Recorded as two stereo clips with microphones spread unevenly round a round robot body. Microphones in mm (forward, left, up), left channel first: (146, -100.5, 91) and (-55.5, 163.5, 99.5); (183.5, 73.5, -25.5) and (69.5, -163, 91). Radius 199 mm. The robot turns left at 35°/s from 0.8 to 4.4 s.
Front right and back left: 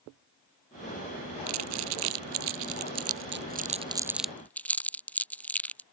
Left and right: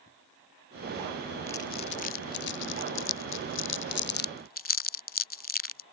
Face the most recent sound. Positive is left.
turn(degrees=35)